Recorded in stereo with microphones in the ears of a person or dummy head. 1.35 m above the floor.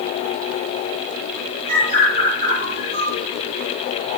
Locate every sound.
1.7 s a bird: 40° right (ahead or behind), 4.5 m